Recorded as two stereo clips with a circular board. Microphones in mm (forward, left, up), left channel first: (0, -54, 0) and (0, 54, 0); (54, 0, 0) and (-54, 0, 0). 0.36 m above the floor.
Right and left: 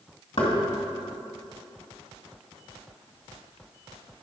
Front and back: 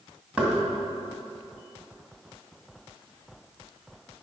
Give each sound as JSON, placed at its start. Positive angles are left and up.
{"t": 0.4, "sound": "knocking", "azimuth_deg": -100, "distance_m": 2.5}